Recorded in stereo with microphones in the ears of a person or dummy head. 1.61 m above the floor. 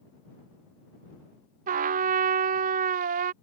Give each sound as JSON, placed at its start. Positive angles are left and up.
{"t": 1.7, "sound": "a trumpet", "side_deg": -45}